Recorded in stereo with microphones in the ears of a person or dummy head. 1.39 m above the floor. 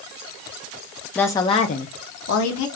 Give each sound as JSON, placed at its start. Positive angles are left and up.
{"t": 1.1, "sound": "a woman speaking", "side_deg": 10, "distance_m": 0.7}